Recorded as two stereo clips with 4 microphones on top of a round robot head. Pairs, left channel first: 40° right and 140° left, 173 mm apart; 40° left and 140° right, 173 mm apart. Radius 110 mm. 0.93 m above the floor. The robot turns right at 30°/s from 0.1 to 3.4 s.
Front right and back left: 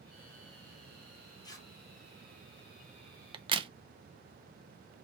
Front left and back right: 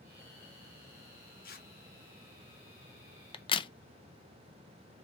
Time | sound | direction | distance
1.4 | tearing paper | 25° left | 1.3 m
3.3 | a crack | 90° left | 0.6 m